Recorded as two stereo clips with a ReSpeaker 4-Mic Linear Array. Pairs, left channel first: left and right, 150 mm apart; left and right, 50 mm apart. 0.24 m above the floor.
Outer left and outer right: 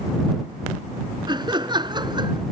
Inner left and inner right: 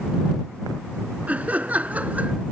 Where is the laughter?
30° right (ahead or behind).